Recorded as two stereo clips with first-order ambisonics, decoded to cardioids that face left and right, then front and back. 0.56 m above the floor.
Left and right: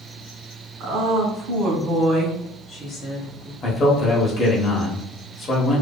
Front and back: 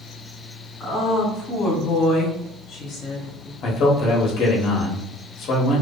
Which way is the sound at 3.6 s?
40° left.